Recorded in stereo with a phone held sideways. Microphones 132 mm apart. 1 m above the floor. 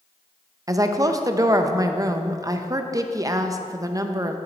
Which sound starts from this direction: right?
A woman speaking, at 0.7 s.